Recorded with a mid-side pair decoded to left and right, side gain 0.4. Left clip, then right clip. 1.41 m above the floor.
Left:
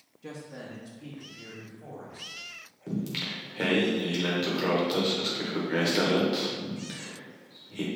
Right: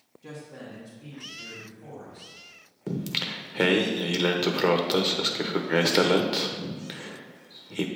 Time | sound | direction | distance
0.2 | a man speaking | 40° left | 1.6 m
2.9 | singing | 55° right | 0.9 m